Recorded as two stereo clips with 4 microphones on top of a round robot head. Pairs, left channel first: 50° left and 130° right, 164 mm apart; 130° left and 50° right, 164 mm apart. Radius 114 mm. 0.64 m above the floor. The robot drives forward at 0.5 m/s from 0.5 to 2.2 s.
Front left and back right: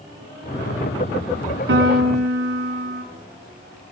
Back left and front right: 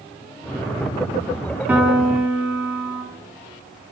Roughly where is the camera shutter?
No camera shutter in this recording.